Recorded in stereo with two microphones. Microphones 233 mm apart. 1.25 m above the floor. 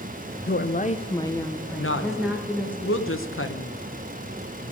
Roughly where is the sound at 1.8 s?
Left.